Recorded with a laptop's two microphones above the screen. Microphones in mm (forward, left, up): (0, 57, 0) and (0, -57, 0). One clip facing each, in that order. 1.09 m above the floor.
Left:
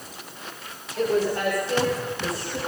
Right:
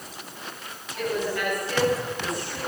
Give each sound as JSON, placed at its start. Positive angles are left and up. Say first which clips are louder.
{"t": 1.0, "sound": "a woman speaking", "louder": "left 5 dB", "side_deg": 35, "distance_m": 6.0}